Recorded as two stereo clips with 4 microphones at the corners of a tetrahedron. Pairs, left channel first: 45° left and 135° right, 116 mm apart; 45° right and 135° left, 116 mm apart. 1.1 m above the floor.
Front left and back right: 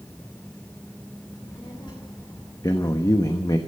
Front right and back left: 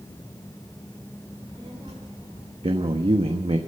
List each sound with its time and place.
1.3 s a child speaking: 85° left, 3 m; by 2.5 s 100° left, 2.5 m
2.6 s a man speaking: 105° left, 1.1 m